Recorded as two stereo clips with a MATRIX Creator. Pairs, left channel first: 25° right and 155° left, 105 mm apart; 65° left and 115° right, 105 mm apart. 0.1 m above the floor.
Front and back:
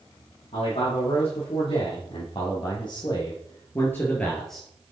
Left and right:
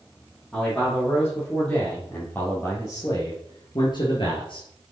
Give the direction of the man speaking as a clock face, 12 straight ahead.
1 o'clock.